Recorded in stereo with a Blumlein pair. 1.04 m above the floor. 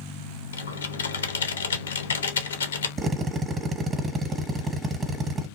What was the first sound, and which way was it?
Typing on a keyboard, 70° left.